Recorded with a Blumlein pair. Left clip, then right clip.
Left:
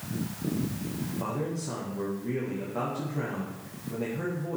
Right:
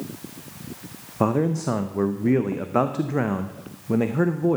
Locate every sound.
1.2 s a man speaking: 35° right, 0.7 m